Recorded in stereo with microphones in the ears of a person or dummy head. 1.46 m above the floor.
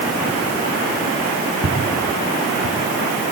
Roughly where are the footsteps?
Left.